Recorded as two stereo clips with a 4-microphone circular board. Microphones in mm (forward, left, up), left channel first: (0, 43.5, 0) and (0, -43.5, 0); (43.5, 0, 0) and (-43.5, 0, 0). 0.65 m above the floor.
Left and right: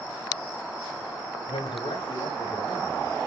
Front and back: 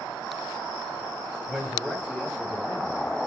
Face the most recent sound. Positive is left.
turn(degrees=130)